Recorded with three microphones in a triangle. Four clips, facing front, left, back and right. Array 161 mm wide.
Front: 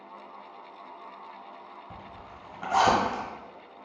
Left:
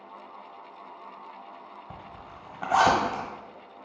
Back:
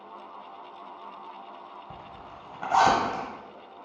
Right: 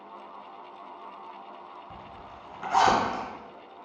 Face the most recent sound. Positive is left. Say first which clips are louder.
# even, back 1 dB
turn(degrees=120)